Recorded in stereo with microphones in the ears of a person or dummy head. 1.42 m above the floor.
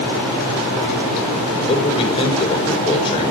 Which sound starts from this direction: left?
A man speaking, at 1.7 s.